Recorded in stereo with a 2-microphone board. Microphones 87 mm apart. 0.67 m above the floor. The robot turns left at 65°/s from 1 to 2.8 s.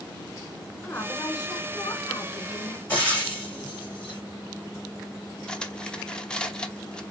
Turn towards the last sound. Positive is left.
turn(degrees=10)  # may be behind; listen again after turning